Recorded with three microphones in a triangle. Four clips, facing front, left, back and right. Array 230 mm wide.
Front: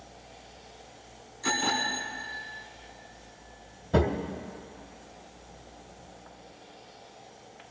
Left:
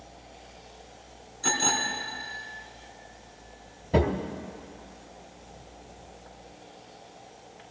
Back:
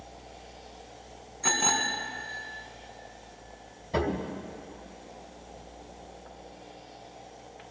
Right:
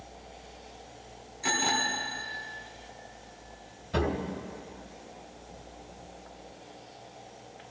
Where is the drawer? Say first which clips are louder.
Left 5 dB, front 3 dB; 50° left, 1.4 m.